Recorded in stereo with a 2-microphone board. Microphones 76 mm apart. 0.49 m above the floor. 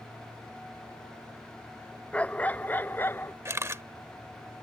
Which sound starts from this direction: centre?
A dog barking, at 2.1 s.